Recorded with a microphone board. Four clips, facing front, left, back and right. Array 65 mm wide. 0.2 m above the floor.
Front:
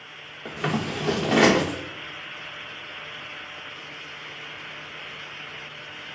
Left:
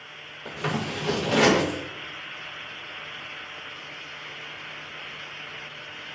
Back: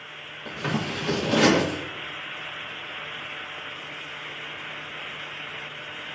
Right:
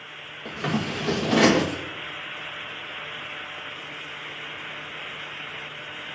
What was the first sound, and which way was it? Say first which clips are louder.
Scissors: right 2 dB, front 1 dB; 20° right.